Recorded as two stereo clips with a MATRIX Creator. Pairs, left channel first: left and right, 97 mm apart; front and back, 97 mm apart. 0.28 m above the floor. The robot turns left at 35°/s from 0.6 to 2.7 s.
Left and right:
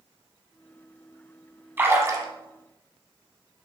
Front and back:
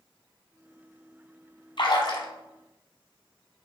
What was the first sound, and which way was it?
A splash, 20° right.